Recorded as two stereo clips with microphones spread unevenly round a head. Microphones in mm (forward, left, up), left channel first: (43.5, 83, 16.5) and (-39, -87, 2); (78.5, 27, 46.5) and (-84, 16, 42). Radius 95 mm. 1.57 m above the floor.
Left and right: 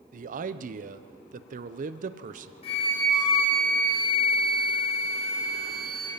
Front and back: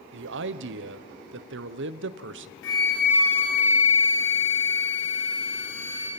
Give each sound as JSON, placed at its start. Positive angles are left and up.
{"t": 0.1, "sound": "a man speaking", "azimuth_deg": -165, "distance_m": 0.8}
{"t": 2.6, "sound": "a flute", "azimuth_deg": 5, "distance_m": 4.5}